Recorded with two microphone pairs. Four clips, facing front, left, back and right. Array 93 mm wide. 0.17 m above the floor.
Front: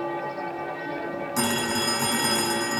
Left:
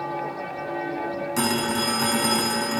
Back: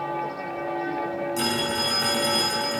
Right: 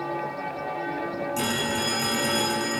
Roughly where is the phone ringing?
Ahead left.